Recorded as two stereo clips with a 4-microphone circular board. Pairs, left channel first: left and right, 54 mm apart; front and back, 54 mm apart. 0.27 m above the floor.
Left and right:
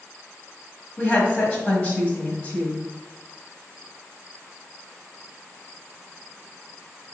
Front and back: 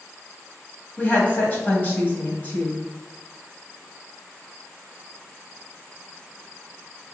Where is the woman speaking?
40° left, 1.2 m.